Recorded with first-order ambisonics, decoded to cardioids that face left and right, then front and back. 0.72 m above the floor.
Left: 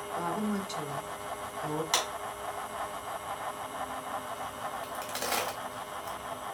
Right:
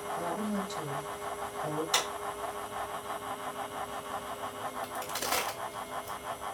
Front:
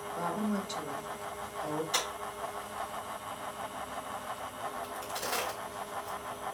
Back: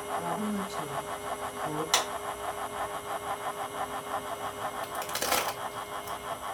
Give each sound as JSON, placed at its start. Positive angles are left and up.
{"t": 0.2, "sound": "a woman speaking", "azimuth_deg": 65, "distance_m": 2.5}
{"t": 1.9, "sound": "a clap", "azimuth_deg": 140, "distance_m": 4.0}
{"t": 4.8, "sound": "a crack", "azimuth_deg": 155, "distance_m": 3.5}